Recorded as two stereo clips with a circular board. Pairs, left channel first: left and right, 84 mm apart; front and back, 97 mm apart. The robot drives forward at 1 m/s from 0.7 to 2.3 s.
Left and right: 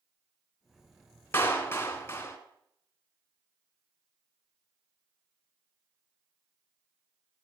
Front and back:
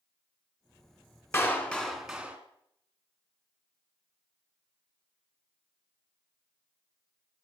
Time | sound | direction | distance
1.3 | a clap | 45° left | 1.5 m